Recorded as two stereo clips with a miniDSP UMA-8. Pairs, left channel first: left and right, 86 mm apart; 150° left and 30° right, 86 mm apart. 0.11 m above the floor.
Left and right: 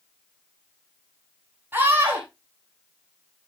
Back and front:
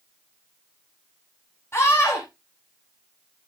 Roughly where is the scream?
Behind right.